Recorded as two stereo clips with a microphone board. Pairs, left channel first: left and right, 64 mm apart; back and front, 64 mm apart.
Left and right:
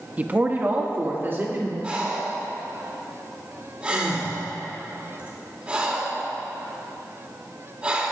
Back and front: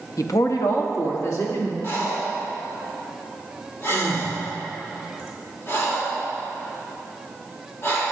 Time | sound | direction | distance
0.2 | a woman speaking | 155° right | 0.6 m
1.8 | breathing | 155° right | 1.5 m